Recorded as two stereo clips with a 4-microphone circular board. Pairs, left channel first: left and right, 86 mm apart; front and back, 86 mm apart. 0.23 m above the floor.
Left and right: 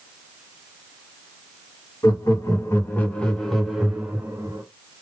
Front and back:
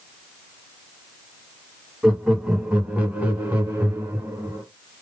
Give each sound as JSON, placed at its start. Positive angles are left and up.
{"t": 2.0, "sound": "laughter", "azimuth_deg": 100, "distance_m": 1.5}